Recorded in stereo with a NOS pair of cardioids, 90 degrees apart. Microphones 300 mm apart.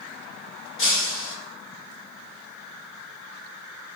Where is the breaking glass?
45° left, 3 m.